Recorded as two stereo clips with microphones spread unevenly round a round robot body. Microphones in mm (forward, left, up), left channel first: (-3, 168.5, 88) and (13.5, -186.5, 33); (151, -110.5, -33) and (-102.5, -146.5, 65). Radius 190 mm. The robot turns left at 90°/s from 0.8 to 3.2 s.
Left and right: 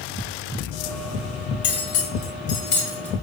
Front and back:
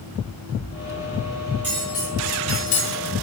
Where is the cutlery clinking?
125° left, 1.9 m; by 3.2 s 20° right, 1.9 m.